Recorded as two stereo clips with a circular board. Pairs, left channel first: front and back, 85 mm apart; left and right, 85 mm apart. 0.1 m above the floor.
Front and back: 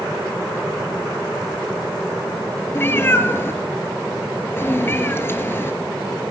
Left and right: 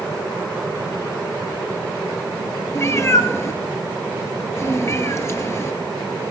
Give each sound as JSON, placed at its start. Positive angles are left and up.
{"t": 2.8, "sound": "a cat meowing", "azimuth_deg": 50, "distance_m": 1.1}